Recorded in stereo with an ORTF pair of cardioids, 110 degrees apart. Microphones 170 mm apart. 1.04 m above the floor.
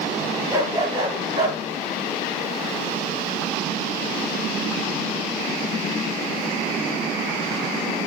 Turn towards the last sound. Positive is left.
turn(degrees=-20)